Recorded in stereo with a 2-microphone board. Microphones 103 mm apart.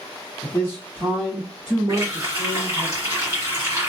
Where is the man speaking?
25° left (ahead or behind), 1.3 m; by 2.9 s 25° right (ahead or behind), 1.8 m.